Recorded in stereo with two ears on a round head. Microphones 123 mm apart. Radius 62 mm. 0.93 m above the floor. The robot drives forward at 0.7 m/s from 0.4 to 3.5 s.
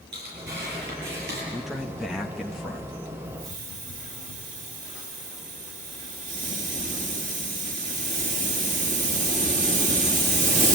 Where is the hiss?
60° right (ahead or behind), 2 m.